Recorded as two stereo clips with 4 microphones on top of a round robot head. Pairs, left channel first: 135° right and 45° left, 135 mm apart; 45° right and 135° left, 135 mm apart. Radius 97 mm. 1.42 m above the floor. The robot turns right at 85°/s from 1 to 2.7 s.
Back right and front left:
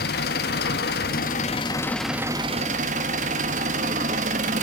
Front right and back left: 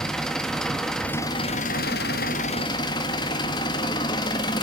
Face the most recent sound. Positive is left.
turn(degrees=10)